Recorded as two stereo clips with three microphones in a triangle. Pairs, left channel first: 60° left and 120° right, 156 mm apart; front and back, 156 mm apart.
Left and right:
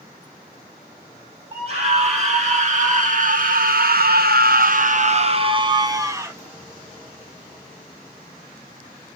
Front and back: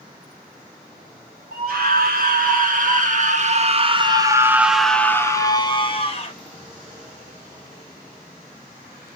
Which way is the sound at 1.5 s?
170° right.